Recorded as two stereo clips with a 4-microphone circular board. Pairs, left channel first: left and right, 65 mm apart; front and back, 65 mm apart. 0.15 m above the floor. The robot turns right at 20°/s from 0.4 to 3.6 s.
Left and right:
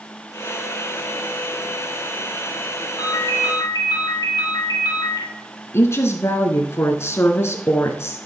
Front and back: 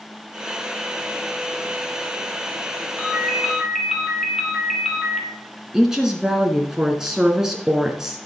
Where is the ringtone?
75° left, 3.5 m; by 5.3 s 85° left, 3.5 m.